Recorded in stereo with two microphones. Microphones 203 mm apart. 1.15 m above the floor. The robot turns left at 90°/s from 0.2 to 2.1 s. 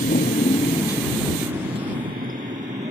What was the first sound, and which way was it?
A motorcycle, 45° left (ahead or behind).